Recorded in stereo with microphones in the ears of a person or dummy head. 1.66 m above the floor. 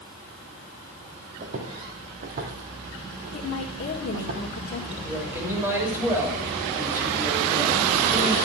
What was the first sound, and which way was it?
Footsteps, 45° right (ahead or behind).